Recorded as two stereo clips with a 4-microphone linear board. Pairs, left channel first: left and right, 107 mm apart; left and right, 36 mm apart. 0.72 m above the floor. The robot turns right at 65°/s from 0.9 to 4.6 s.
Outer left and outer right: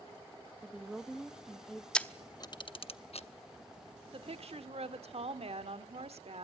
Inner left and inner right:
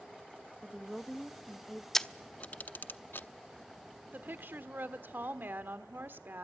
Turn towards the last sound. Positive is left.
turn(degrees=-85)